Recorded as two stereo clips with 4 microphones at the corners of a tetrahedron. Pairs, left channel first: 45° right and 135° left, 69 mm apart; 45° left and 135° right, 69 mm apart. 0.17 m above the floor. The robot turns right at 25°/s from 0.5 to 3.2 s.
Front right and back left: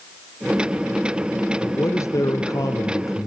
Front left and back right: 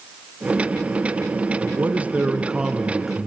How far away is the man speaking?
About 2.5 m.